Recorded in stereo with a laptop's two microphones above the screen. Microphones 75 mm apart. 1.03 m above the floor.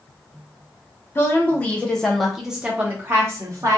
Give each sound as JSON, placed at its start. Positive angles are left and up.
{"t": 1.1, "sound": "a woman speaking", "side_deg": 30, "distance_m": 1.1}